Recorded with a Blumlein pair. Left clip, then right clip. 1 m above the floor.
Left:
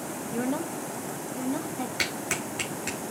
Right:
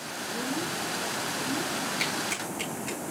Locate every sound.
0.3 s a woman speaking: 60° left, 1.9 m
2.0 s a clap: 65° left, 9.5 m